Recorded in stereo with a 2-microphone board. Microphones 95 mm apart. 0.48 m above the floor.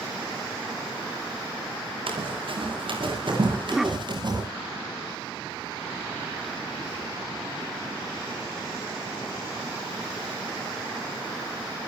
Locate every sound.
2.1 s running footsteps: 65° right (ahead or behind), 8 m; by 4.4 s 50° right (ahead or behind), 7 m
3.5 s a cough: 5° right (ahead or behind), 1.2 m